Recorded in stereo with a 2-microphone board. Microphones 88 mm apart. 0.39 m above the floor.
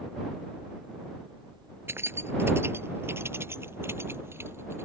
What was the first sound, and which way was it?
Keys jangling, 30° right (ahead or behind).